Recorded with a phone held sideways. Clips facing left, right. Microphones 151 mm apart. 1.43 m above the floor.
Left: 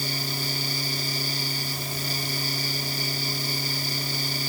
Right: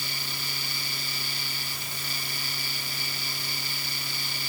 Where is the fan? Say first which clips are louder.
Left 8 dB; 40° left (ahead or behind).